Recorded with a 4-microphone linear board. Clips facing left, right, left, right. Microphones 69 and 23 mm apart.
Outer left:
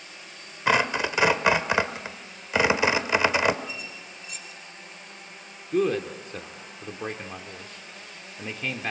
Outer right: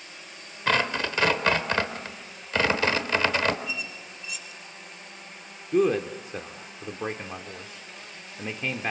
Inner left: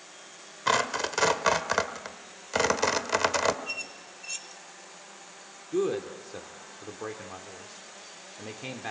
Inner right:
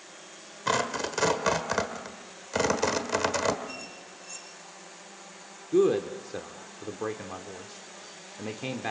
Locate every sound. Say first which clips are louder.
0.7 s tearing paper: outer left 2 dB, inner left 2 dB; 15° left (ahead or behind), 1.4 m
3.7 s a squeak: outer right 3 dB, inner left 4 dB; 45° left (ahead or behind), 2.5 m
5.7 s a man speaking: outer right 2 dB, inner right 5 dB; 10° right (ahead or behind), 1.2 m